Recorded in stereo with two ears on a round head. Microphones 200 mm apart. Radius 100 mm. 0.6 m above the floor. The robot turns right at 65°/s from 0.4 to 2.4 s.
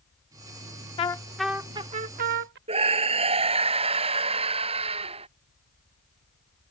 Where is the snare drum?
No snare drum in this recording.